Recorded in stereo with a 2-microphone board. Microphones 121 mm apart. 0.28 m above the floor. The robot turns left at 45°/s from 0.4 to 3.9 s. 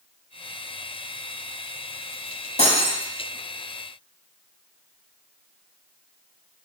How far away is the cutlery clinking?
About 0.9 m.